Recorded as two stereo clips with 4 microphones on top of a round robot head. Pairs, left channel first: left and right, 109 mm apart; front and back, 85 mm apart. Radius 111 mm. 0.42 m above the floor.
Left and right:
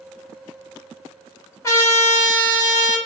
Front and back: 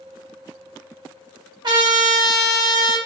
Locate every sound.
1.6 s a trumpet: 150° left, 2.5 m